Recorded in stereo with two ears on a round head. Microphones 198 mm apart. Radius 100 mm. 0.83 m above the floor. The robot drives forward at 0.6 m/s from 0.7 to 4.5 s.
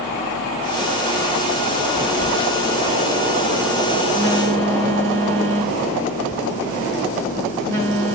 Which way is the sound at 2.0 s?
30° left (ahead or behind).